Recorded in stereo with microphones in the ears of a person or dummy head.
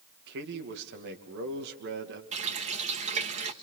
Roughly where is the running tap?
Right.